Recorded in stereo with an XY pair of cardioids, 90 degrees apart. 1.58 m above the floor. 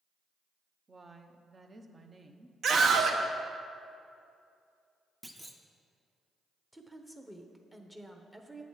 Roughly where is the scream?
Ahead right.